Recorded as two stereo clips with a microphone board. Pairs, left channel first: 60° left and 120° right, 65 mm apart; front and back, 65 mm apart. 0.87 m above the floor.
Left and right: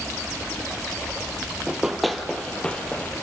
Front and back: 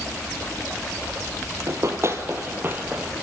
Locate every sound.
1.7 s running footsteps: 160° left, 1.4 m; by 3.1 s 120° left, 1.6 m